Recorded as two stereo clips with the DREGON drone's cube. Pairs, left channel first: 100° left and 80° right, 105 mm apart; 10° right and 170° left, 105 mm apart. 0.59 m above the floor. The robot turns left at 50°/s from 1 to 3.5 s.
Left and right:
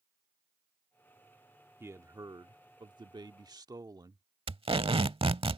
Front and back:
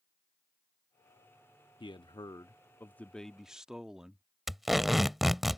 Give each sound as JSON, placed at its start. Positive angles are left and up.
{"t": 1.8, "sound": "a man speaking", "azimuth_deg": -20}
{"t": 4.5, "sound": "tape being pulled", "azimuth_deg": -100}